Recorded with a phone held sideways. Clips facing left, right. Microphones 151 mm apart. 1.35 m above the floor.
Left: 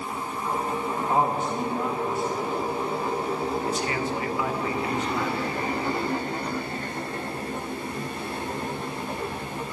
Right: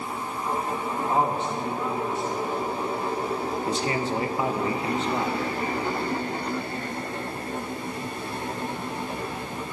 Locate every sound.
1.0 s a man speaking: 10° left (ahead or behind), 1.7 m
3.7 s a man speaking: 30° right (ahead or behind), 1.4 m